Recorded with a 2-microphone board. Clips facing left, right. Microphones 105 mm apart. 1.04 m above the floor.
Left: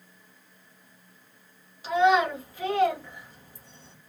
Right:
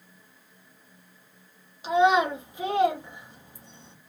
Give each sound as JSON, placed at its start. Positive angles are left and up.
{"t": 1.8, "sound": "a child speaking", "side_deg": -20, "distance_m": 0.9}